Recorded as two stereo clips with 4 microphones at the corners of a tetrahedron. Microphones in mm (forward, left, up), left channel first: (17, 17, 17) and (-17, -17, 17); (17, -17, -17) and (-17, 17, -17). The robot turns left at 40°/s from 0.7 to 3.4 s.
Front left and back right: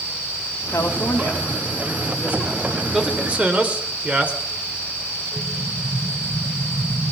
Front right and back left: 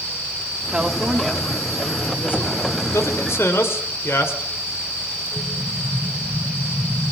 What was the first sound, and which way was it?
A woman speaking, 60° left.